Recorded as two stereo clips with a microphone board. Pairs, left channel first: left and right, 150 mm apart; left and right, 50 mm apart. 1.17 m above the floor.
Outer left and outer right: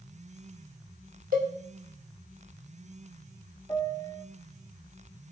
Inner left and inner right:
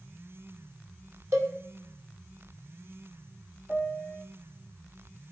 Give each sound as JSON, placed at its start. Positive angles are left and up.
{"t": 1.3, "sound": "a cowbell", "side_deg": -70, "distance_m": 1.8}
{"t": 3.7, "sound": "a piano", "side_deg": 20, "distance_m": 0.7}